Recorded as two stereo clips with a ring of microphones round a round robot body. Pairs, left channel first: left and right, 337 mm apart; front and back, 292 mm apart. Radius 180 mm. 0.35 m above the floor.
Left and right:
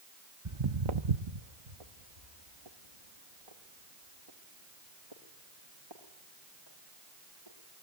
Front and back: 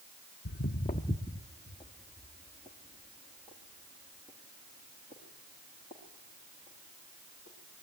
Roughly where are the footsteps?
Ahead right.